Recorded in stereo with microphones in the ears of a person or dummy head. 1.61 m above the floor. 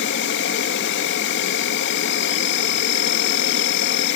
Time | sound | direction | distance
0.0 | an insect | 55° left (ahead or behind) | 1.8 m